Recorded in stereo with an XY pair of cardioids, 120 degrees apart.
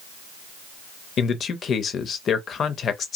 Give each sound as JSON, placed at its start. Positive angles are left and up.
{"t": 1.2, "sound": "a man speaking", "azimuth_deg": 45, "distance_m": 0.6}